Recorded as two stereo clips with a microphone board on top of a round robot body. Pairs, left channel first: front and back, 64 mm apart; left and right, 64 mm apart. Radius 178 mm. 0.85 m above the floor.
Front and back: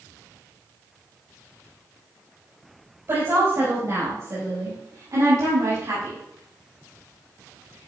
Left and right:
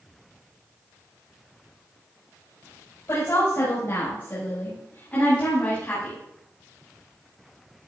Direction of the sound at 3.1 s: 135° left.